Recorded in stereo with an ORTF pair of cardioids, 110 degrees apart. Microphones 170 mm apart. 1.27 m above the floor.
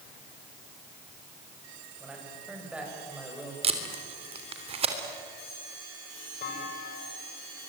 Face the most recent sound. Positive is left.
turn(degrees=60)